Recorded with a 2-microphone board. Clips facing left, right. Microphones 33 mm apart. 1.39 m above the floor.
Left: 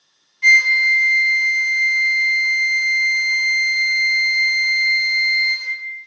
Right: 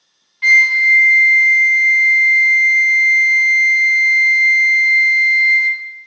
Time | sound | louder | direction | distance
0.4 | a flute | right 2 dB | 35° right (ahead or behind) | 0.5 m